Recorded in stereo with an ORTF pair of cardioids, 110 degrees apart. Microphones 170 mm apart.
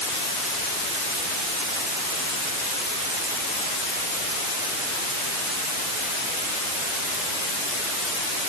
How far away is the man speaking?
I don't hear a man speaking.